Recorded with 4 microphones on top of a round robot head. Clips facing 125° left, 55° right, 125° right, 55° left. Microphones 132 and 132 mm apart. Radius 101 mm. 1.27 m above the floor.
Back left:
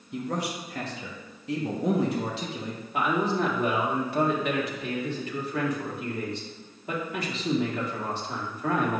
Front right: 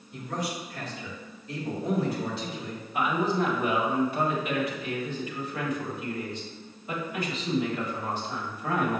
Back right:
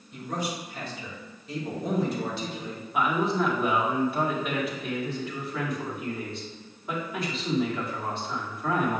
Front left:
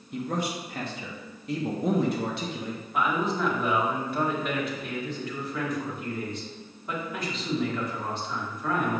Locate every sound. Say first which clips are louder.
0.1 s a man speaking: back left 2 dB, front left 2 dB; 95° left, 1.2 m
2.9 s a man speaking: even, back right 2 dB; 150° left, 1.7 m